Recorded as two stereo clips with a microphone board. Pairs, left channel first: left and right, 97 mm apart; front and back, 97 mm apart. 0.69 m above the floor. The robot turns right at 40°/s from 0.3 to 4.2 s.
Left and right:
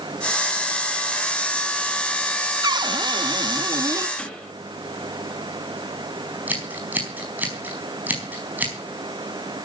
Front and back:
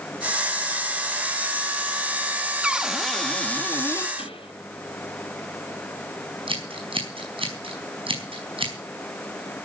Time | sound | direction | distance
2.6 | a cupboard door | 105° right | 0.6 m
4.2 | a pop | 5° left | 4.5 m
6.5 | scissors | 160° right | 4.5 m